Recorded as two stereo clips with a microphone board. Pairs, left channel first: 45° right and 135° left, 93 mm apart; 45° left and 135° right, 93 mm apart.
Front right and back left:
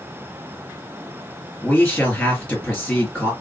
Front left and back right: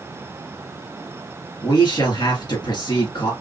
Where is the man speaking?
35° left, 2.5 m.